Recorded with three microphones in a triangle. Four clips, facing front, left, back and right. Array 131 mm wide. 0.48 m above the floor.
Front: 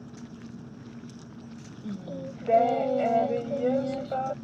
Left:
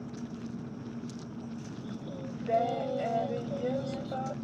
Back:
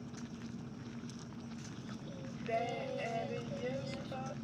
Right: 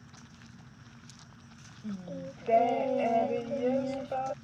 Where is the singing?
15° right.